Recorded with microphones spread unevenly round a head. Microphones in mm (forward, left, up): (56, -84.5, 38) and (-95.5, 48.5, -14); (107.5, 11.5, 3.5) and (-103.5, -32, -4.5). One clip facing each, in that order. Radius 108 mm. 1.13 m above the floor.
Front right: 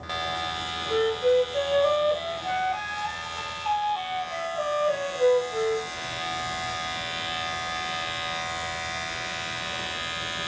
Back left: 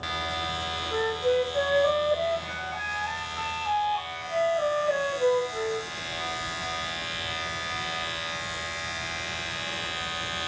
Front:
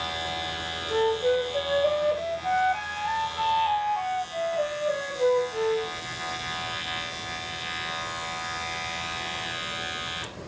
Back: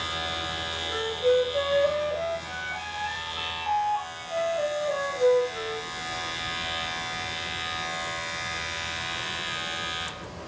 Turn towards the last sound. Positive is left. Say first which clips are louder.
# front right 4 dB, front 1 dB
turn(degrees=-85)